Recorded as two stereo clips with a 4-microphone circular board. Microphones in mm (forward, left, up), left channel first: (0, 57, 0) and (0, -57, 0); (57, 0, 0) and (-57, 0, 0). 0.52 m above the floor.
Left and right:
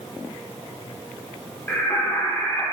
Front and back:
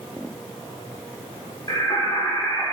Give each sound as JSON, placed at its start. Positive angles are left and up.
{"t": 1.7, "sound": "singing", "azimuth_deg": 30, "distance_m": 1.6}